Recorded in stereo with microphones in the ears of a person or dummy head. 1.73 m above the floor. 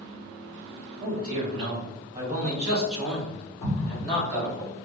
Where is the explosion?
25° left (ahead or behind), 1.2 m.